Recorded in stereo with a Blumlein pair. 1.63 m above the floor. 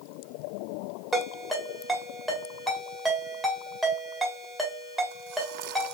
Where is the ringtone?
Straight ahead, 1.7 m.